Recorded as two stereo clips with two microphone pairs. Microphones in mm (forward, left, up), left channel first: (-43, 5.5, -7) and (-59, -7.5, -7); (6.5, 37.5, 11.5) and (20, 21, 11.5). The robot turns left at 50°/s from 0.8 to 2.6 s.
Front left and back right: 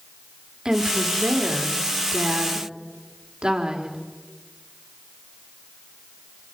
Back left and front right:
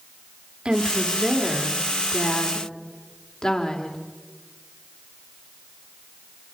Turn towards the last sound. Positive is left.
turn(degrees=-175)